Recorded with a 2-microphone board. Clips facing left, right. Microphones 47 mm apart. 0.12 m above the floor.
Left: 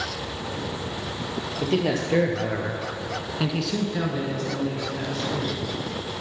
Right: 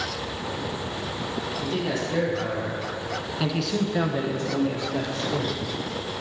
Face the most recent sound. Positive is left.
turn(degrees=-50)  # may be behind; listen again after turning